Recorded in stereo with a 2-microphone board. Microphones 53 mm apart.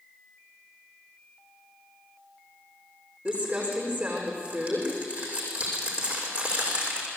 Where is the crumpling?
30° right (ahead or behind), 6.5 m.